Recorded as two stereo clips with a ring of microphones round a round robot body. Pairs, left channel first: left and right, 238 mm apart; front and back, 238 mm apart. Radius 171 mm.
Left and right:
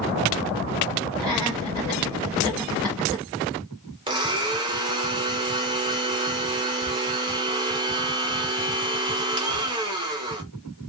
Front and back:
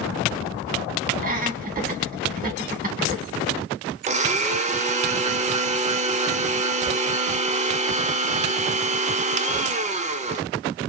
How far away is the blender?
About 0.5 m.